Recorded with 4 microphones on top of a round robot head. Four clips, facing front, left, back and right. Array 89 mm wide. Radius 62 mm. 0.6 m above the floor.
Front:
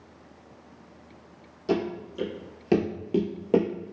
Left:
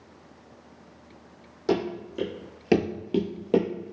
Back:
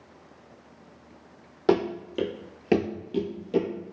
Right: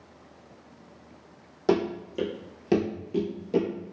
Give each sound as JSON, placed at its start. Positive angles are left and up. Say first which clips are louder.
{"t": 1.7, "sound": "running footsteps", "louder": "right 2 dB, back 4 dB", "azimuth_deg": -165, "distance_m": 1.2}